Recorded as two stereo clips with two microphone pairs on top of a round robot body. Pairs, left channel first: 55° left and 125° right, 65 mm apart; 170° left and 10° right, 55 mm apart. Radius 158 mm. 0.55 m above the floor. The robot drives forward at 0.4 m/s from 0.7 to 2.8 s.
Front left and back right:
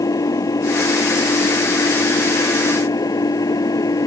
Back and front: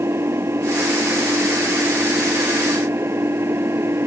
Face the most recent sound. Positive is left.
turn(degrees=30)